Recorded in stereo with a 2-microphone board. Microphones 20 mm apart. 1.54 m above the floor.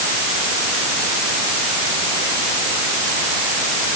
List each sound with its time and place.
Only background noise.